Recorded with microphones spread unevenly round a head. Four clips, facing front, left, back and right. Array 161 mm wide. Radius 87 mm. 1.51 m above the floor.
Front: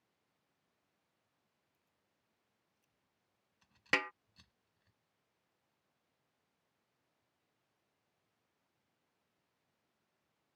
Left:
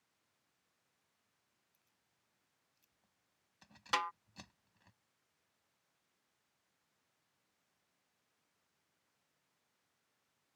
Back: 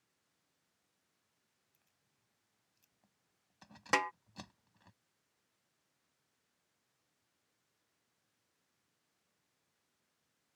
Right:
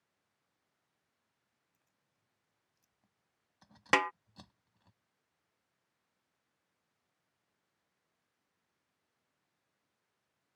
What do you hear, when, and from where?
1.7 s keys jangling: 160° right; by 4.9 s 175° left
3.9 s a snare drum: 95° right